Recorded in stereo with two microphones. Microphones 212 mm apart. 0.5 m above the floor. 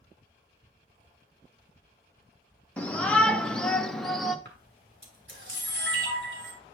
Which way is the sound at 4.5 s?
65° right (ahead or behind).